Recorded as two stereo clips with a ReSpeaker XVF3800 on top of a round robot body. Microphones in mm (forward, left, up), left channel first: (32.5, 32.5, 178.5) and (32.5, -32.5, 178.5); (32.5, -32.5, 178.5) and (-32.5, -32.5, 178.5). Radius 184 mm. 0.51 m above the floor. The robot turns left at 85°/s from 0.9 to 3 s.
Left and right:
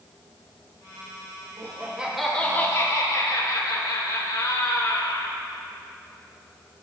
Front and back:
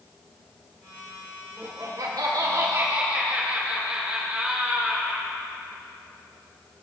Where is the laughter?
125° right, 3 m; by 5.3 s 110° left, 3 m.